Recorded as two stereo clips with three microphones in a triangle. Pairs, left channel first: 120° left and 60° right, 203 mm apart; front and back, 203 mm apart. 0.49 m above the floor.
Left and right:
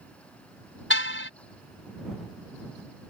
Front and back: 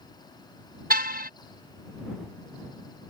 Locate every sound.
0.9 s a car horn: 140° left